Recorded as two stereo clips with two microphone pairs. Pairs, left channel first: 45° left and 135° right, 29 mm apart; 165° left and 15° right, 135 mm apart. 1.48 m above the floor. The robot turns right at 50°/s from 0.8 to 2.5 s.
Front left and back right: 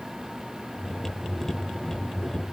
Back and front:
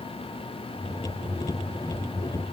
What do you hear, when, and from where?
Only background noise.